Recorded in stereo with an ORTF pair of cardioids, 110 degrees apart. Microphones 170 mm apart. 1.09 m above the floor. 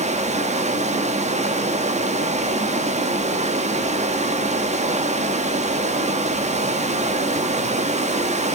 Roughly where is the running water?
Ahead right.